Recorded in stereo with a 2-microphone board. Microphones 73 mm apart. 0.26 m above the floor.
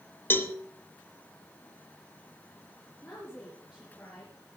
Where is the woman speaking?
25° left (ahead or behind), 5.5 m.